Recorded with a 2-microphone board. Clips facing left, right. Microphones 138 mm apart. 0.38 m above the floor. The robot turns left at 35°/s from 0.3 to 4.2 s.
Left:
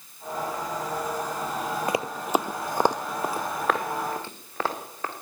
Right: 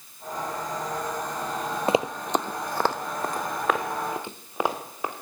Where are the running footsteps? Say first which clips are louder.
Right 4 dB; 30° right (ahead or behind), 0.5 m; by 5.1 s 15° right (ahead or behind), 3.5 m.